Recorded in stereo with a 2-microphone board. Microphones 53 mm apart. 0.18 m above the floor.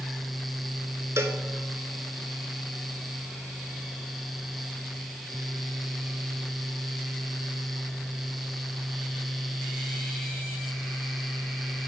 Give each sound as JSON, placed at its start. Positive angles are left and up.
{"t": 1.2, "sound": "a cowbell", "side_deg": -65, "distance_m": 0.8}